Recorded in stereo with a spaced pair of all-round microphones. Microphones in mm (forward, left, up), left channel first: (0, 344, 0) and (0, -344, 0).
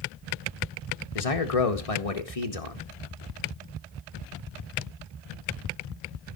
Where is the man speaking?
55° left (ahead or behind), 1.6 m.